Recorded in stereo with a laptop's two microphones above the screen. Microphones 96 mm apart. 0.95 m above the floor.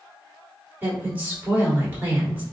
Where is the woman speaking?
20° right (ahead or behind), 1.9 m.